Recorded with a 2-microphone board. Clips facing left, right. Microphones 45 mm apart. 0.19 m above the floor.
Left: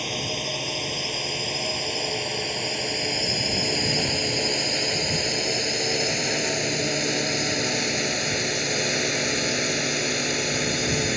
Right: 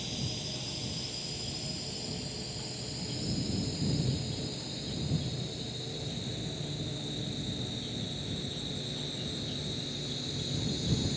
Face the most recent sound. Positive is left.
turn(degrees=60)  # may be behind; listen again after turning